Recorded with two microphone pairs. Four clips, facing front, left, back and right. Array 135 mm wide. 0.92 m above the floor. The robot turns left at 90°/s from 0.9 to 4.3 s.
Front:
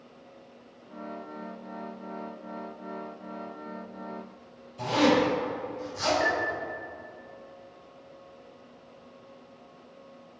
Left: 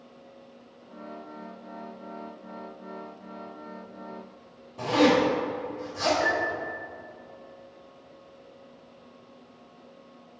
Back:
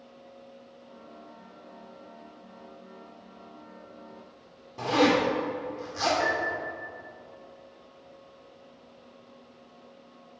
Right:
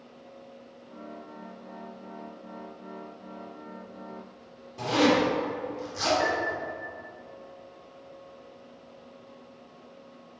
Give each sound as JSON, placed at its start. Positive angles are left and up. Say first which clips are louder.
{"t": 4.8, "sound": "a zipper", "louder": "left 2 dB, even", "azimuth_deg": -175, "distance_m": 2.5}
{"t": 6.2, "sound": "a piano", "louder": "left 1 dB, front 1 dB", "azimuth_deg": -130, "distance_m": 2.5}